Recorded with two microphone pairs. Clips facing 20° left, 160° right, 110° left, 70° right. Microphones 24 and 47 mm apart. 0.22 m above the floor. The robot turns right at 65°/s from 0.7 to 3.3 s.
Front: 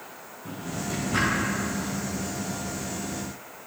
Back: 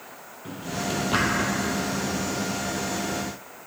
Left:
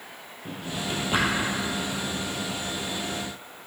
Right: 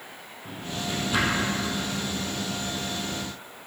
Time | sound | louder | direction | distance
0.5 | a drawer | back 3 dB, left 1 dB | 135° left | 1.7 m